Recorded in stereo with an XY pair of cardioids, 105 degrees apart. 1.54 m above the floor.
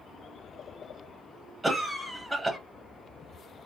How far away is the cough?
About 1.0 m.